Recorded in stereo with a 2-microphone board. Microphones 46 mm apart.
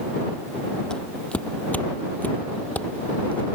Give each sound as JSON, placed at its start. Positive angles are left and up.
{"t": 0.9, "sound": "footsteps", "side_deg": 20}